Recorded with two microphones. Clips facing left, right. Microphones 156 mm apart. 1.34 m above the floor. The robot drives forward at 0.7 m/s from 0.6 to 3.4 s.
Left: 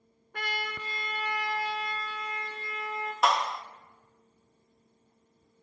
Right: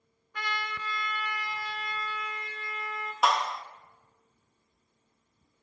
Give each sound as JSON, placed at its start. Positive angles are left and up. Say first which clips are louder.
{"t": 0.3, "sound": "a trumpet", "louder": "even", "side_deg": 50, "distance_m": 1.3}
{"t": 3.2, "sound": "a clap", "louder": "even", "side_deg": 0, "distance_m": 1.8}